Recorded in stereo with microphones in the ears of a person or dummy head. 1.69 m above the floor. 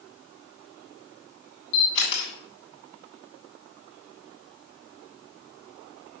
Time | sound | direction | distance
1.7 | a camera shutter | 65° left (ahead or behind) | 3 m